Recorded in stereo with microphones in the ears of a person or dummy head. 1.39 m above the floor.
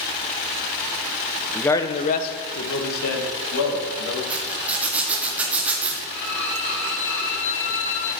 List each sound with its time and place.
1.6 s a man speaking: 10° left (ahead or behind), 0.7 m; by 4.2 s 85° left, 2.5 m
4.3 s a zipper: centre (ahead or behind), 1.1 m
6.1 s a violin: 15° left (ahead or behind), 1.7 m